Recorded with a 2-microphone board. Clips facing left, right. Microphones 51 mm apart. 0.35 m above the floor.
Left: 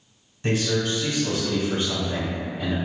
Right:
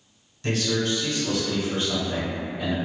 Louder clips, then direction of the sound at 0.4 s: Left 1 dB; 20° left (ahead or behind).